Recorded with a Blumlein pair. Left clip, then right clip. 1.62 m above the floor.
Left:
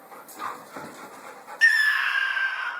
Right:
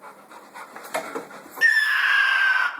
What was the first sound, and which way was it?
A scream, 5° left.